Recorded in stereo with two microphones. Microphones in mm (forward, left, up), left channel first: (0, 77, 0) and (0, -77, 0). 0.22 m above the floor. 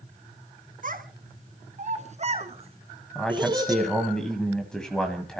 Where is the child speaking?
65° right (ahead or behind), 2 m; by 3.9 s 25° right (ahead or behind), 2 m.